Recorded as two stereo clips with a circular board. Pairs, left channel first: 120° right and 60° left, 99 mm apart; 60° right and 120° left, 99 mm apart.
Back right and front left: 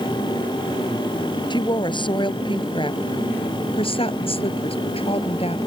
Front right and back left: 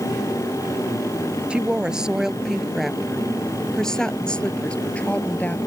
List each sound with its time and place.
1.5 s a woman speaking: 160° right; by 5.6 s 135° right